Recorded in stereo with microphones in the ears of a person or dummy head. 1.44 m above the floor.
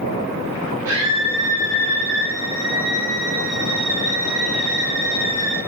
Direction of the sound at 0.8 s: 20° right (ahead or behind).